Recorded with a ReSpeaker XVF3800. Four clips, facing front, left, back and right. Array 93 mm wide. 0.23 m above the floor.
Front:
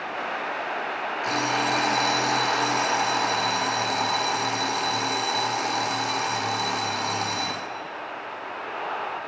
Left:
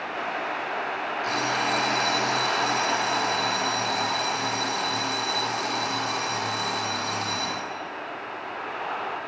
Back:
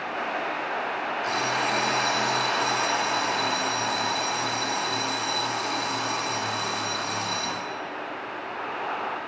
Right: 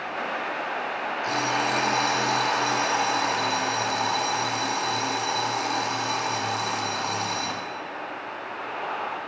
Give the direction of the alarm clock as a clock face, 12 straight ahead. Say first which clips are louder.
Right 1 dB, front 3 dB; 12 o'clock.